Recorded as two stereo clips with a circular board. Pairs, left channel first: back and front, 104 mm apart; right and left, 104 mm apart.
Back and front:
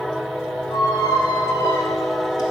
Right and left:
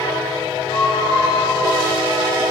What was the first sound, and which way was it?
A squeak, 135° right.